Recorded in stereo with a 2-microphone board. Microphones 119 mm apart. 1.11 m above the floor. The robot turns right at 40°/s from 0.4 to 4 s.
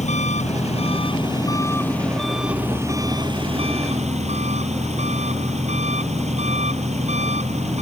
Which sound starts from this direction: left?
An engine running, at 0.0 s.